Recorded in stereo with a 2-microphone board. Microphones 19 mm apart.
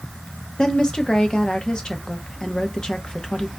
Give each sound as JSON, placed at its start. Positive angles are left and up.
{"t": 0.6, "sound": "a woman speaking", "side_deg": 40, "distance_m": 0.7}